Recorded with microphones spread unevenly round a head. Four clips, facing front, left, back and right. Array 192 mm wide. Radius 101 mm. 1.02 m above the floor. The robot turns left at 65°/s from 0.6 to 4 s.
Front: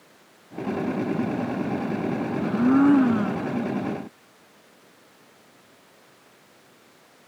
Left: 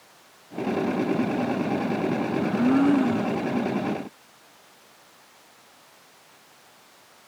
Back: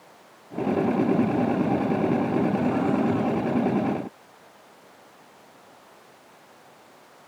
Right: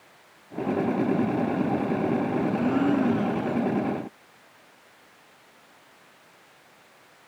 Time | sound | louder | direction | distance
2.4 | a blender | left 6 dB, front 4 dB | 45° left | ?